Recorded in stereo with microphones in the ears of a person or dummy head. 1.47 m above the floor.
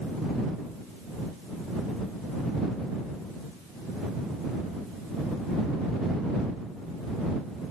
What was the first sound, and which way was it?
Only background noise.